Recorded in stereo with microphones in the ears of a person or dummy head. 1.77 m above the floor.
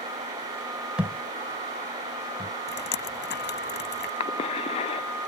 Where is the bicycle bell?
No bicycle bell in this recording.